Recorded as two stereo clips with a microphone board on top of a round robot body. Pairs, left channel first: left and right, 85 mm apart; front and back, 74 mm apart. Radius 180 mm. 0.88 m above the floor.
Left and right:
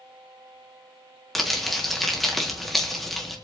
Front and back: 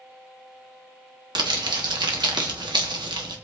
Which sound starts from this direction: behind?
Crumpling, at 1.4 s.